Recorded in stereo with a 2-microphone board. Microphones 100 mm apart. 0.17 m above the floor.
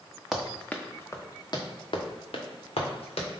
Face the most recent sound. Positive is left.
turn(degrees=85)